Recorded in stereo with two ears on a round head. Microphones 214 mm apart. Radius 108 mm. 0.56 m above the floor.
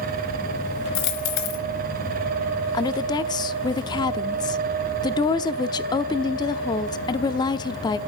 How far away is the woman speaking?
About 0.8 m.